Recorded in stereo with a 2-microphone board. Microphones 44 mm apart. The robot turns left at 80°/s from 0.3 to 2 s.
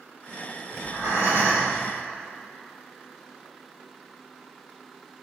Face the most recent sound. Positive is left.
turn(degrees=180)